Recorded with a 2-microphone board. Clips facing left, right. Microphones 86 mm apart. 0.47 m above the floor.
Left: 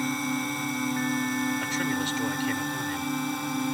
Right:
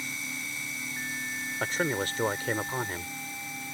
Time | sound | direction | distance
0.0 | a drone | 50° left (ahead or behind) | ?
1.6 | a man speaking | 40° right (ahead or behind) | ?